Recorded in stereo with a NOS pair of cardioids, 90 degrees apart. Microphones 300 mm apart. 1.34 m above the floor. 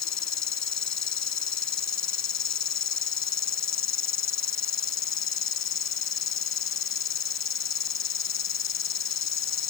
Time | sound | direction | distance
0.0 | an insect | 55° left | ?